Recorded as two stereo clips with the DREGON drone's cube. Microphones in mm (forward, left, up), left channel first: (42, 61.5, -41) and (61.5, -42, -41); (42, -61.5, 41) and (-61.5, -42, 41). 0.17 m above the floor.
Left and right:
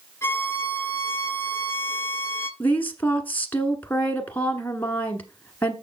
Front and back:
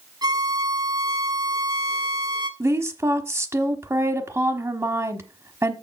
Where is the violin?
155° left, 1.1 m.